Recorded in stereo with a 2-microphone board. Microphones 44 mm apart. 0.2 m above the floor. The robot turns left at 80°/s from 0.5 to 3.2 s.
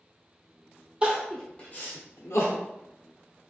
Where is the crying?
25° right (ahead or behind), 0.9 m; by 2.6 s 75° left (ahead or behind), 0.9 m.